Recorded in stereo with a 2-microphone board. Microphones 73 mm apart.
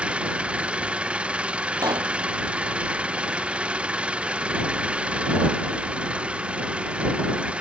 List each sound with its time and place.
0.0 s an engine running: 15° right (ahead or behind)
1.8 s a pop: 55° right (ahead or behind)